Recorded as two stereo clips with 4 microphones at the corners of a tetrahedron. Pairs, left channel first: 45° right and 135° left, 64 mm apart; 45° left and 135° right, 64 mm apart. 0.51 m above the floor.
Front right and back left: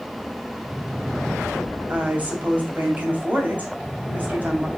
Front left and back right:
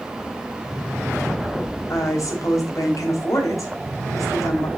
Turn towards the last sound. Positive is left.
turn(degrees=75)